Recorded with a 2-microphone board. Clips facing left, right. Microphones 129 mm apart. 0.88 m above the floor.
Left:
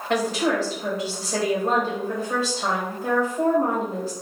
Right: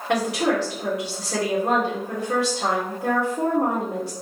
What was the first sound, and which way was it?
A woman speaking, 75° right (ahead or behind).